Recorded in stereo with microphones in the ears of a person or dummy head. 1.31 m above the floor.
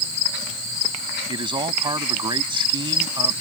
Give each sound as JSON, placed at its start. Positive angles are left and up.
{"t": 1.3, "sound": "a man speaking", "side_deg": -20}